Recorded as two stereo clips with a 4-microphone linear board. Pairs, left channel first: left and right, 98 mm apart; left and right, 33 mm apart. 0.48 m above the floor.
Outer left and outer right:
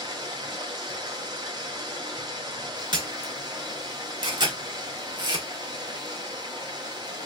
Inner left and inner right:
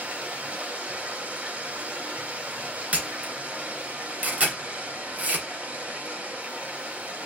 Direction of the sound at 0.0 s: 45° right (ahead or behind).